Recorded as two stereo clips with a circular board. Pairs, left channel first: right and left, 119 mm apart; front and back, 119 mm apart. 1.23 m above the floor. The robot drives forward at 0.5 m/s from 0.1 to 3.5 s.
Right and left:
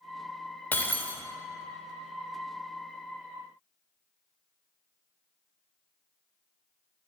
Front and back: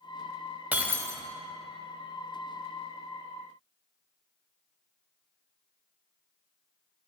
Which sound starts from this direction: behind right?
Breaking glass, at 0.7 s.